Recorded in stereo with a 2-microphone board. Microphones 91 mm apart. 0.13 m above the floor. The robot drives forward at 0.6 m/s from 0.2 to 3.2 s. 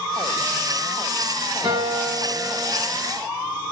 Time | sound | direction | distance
1.6 | a guitar | 65° right (ahead or behind) | 9 m